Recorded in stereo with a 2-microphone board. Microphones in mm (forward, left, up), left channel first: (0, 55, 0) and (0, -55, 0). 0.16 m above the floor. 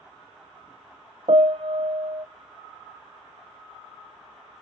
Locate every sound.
1.3 s a piano: 60° right (ahead or behind), 0.8 m